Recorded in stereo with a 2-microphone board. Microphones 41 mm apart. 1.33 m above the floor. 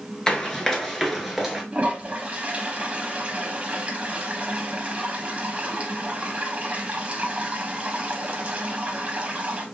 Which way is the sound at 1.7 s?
35° right (ahead or behind).